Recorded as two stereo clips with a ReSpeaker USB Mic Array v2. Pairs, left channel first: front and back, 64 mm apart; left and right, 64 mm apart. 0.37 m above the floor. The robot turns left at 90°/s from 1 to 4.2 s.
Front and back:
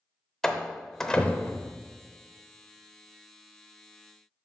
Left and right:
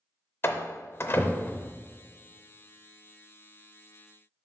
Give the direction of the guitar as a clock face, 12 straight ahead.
I don't hear a guitar.